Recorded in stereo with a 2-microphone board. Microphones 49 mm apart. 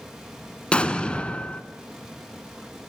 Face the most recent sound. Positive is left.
turn(degrees=25)  # may be behind; listen again after turning